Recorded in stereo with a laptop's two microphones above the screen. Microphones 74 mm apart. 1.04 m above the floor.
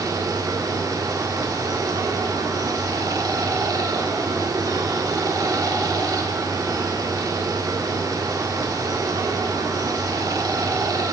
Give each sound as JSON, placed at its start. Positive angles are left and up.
{"t": 0.0, "sound": "running water", "side_deg": -55, "distance_m": 1.4}